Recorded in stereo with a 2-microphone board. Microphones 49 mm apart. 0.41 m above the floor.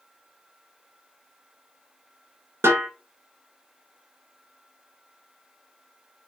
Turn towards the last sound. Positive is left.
turn(degrees=-60)  # may be behind; listen again after turning